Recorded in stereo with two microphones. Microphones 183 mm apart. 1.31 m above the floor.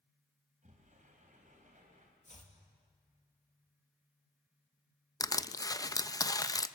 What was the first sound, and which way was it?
A sliding door, 45° right (ahead or behind).